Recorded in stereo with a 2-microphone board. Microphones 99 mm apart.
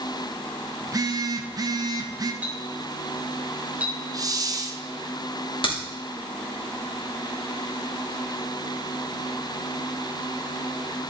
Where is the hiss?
40° right (ahead or behind), 0.6 m.